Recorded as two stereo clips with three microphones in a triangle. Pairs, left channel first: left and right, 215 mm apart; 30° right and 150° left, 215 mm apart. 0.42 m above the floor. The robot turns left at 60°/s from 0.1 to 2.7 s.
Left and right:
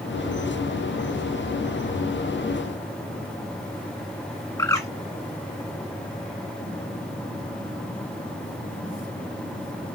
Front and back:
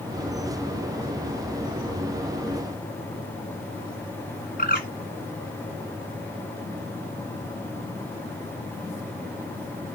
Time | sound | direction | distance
4.6 | a bird | 15° left | 2.5 m